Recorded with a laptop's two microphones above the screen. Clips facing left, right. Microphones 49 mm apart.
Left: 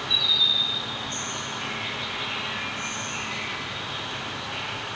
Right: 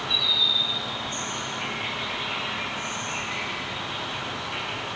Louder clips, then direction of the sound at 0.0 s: Even; 10° right (ahead or behind).